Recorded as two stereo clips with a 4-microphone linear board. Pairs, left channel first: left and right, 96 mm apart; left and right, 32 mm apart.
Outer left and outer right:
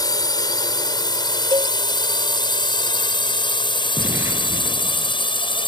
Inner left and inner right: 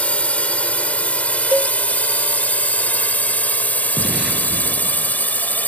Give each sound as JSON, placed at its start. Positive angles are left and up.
{"t": 0.0, "sound": "a drone", "side_deg": 45}
{"t": 1.5, "sound": "a cowbell", "side_deg": -50}
{"t": 4.0, "sound": "an explosion", "side_deg": -25}